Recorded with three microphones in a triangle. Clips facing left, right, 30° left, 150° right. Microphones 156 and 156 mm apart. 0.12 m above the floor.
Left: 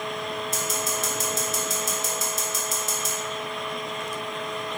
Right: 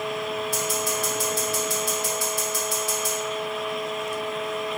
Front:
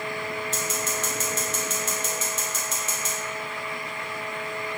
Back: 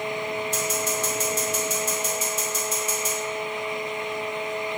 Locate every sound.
0.5 s scissors: 140° left, 1.1 m